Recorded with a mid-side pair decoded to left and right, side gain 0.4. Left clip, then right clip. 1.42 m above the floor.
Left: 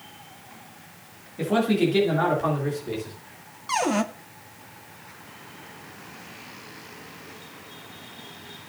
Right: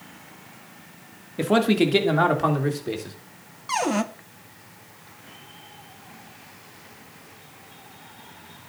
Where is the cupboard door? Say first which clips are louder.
Even; straight ahead, 0.8 m.